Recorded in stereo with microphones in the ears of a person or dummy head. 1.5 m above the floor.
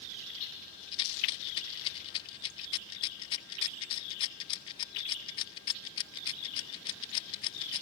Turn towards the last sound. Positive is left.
turn(degrees=30)  # may be behind; listen again after turning